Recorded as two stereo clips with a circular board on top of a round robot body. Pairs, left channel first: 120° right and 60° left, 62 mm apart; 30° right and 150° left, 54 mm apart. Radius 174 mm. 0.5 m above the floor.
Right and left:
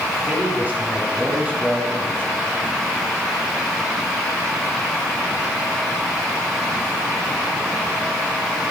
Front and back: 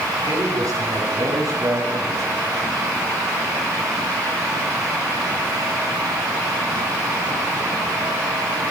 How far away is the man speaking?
About 6.5 m.